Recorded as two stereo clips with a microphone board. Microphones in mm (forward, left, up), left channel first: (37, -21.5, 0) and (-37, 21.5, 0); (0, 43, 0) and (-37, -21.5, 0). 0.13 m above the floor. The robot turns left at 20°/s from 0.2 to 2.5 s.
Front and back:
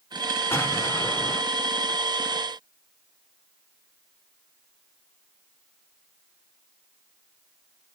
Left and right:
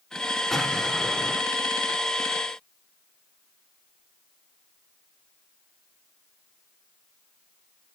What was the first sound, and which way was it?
An explosion, 15° right.